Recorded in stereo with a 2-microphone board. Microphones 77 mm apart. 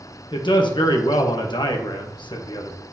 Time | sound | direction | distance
0.3 | a man speaking | 85° left | 1.2 m